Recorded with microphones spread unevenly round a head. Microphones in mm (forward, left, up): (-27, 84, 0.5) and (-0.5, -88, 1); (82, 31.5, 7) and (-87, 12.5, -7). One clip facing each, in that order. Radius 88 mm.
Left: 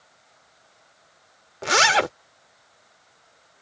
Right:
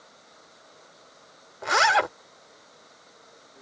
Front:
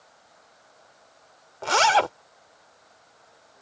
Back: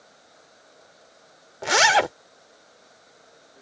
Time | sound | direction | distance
0.0 | running water | 115° right | ?
1.6 | a zipper | 115° left | ?